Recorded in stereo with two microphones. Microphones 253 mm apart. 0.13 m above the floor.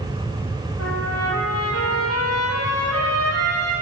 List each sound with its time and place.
0.8 s a trumpet: 75° left (ahead or behind), 2 m